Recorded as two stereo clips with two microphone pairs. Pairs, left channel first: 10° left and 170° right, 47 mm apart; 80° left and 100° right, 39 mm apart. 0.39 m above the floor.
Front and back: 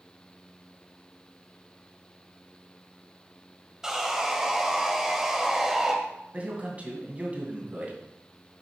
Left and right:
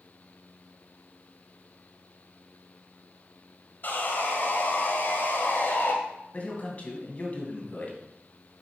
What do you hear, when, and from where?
3.8 s sawing: 110° left, 1.7 m
6.3 s a man speaking: 135° left, 2.5 m